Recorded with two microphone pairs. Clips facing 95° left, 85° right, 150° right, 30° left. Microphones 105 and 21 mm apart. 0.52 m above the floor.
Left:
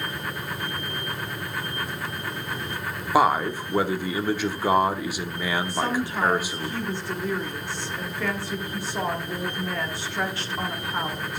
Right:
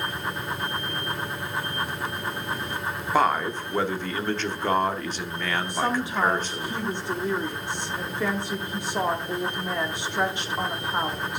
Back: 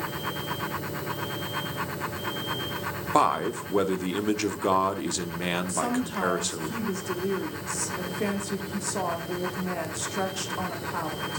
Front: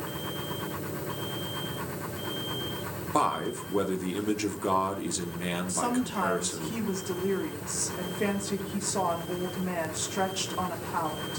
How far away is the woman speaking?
About 1.1 m.